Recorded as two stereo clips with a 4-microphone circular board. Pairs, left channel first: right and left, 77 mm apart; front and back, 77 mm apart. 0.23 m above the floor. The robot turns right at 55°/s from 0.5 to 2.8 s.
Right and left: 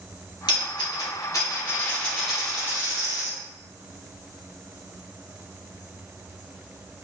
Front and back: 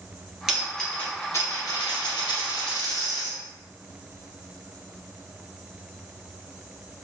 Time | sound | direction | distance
0.5 | a dropped coin | 95° right | 1.6 m